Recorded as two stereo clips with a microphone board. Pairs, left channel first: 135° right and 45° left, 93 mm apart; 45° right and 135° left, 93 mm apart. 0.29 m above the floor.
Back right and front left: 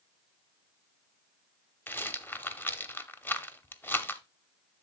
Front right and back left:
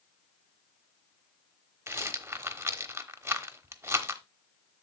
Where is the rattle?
175° left, 0.9 m.